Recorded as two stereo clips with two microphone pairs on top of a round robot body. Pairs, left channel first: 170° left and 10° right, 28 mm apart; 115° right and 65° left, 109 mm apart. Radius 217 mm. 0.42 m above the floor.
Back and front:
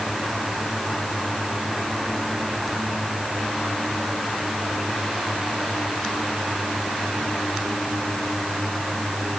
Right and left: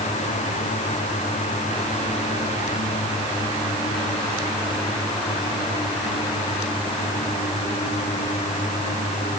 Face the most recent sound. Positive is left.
No sound to turn to.